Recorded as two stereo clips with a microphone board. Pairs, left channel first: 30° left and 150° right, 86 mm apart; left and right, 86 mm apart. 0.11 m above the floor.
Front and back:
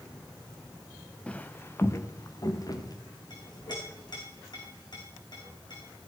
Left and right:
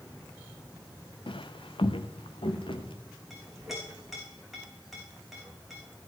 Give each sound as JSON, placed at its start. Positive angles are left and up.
{"t": 1.3, "sound": "footsteps", "azimuth_deg": 110, "distance_m": 0.8}
{"t": 3.3, "sound": "a clink", "azimuth_deg": 0, "distance_m": 4.5}